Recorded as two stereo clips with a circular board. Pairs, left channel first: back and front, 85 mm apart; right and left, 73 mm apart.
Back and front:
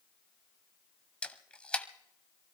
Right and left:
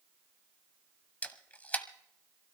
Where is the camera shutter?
120° right, 1.0 m.